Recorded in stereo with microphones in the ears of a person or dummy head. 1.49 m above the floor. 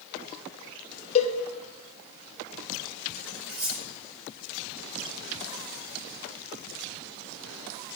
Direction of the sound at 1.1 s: 35° left (ahead or behind).